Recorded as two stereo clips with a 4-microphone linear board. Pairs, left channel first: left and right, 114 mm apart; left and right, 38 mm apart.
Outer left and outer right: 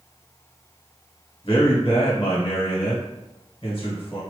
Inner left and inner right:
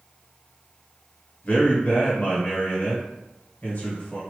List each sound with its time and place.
1.4 s a man speaking: 55° left (ahead or behind), 1.6 m